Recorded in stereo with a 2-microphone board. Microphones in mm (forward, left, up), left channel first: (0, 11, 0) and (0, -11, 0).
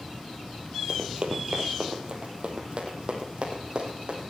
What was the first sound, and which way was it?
Running footsteps, 40° right (ahead or behind).